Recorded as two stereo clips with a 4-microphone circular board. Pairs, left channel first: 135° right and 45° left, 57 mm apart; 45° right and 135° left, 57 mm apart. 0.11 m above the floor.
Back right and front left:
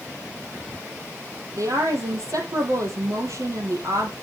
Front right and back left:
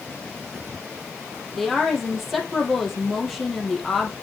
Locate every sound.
1.6 s a woman speaking: 45° left, 4 m